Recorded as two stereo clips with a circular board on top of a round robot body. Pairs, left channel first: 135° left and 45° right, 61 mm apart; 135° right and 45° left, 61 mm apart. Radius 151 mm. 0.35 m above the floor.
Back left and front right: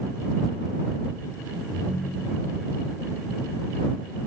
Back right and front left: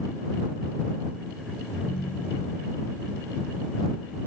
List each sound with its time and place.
1.7 s a ringtone: 135° right